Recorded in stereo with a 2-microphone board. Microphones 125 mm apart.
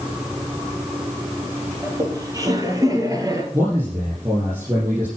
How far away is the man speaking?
About 6.5 m.